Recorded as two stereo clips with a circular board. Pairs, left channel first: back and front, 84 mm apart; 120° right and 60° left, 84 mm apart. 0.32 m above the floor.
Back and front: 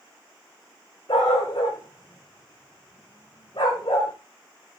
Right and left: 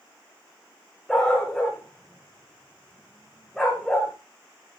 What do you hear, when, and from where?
1.1 s a dog barking: 155° left, 9.5 m